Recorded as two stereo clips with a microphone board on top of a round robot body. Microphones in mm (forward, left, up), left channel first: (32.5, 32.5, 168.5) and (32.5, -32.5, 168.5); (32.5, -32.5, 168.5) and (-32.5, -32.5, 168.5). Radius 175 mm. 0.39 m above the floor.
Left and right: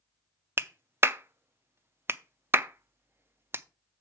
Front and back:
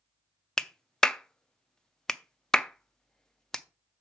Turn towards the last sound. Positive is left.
turn(degrees=-75)